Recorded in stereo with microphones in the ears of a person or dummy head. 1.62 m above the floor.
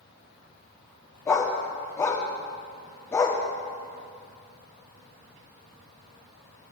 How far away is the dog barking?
About 1.3 m.